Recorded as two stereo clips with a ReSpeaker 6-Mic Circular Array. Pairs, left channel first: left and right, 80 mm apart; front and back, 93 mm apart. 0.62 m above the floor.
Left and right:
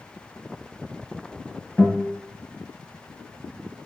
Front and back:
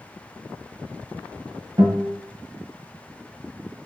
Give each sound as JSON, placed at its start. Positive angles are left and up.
{"t": 1.8, "sound": "a guitar", "azimuth_deg": 155, "distance_m": 1.1}